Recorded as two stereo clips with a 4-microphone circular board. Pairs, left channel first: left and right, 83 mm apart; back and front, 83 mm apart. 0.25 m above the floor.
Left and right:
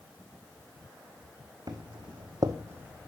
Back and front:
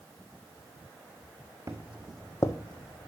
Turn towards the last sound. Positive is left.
turn(degrees=-170)